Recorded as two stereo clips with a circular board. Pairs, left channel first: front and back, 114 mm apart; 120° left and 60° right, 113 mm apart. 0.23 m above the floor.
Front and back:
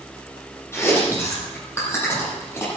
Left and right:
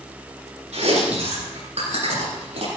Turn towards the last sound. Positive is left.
turn(degrees=-65)